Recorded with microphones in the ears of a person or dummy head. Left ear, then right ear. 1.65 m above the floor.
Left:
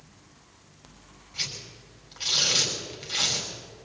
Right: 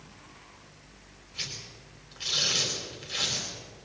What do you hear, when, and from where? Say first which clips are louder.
1.3 s tearing paper: left 4 dB; centre (ahead or behind), 5.5 m